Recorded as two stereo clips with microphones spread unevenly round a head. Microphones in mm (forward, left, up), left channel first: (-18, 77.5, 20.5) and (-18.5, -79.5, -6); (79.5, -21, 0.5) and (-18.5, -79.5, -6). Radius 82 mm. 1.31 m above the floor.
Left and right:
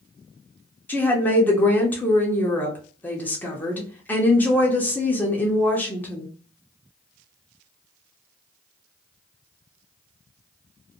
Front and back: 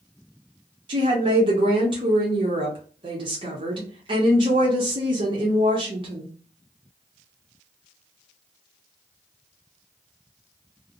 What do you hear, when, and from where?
0.9 s a woman speaking: 175° left, 0.7 m